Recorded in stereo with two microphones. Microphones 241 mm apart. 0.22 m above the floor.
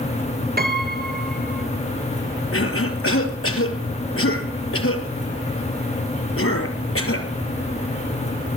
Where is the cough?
65° left (ahead or behind), 4.5 m.